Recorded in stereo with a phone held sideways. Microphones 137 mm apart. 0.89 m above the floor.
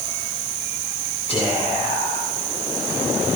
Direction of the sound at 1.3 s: 50° left (ahead or behind).